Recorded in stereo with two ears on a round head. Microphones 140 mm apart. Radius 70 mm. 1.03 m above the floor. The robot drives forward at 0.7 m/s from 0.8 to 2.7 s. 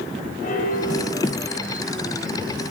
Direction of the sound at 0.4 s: 55° left (ahead or behind).